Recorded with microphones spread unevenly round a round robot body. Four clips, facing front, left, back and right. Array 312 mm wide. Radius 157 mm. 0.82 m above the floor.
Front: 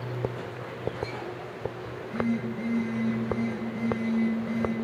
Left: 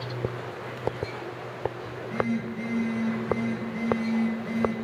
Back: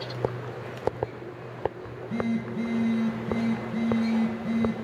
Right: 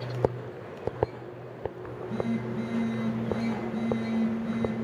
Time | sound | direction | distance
1.9 | a phone buzzing | 165° right | 2 m